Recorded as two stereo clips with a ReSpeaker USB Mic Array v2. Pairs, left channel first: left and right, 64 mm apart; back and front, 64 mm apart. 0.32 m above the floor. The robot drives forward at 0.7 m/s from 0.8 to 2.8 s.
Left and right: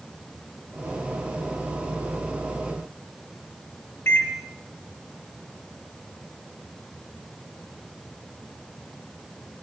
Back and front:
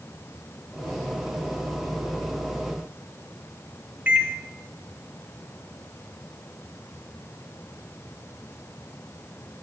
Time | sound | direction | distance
4.1 | a microwave | 55° left | 1.0 m